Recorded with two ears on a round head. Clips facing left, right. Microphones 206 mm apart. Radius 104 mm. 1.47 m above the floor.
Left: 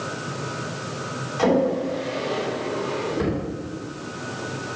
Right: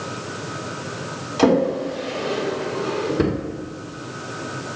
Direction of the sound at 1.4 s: 55° right (ahead or behind).